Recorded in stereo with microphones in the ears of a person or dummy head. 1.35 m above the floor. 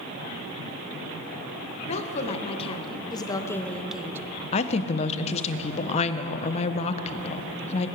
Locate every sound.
1.9 s a woman speaking: 40° left (ahead or behind), 1.4 m; by 4.2 s 15° right (ahead or behind), 0.6 m
4.5 s a woman speaking: 35° left (ahead or behind), 0.7 m